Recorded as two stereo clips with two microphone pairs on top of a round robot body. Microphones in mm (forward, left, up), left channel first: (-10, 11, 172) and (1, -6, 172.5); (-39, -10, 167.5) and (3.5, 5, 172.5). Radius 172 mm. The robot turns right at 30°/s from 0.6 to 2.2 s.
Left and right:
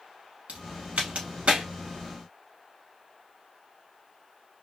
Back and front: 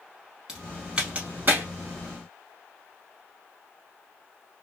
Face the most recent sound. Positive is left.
turn(degrees=-10)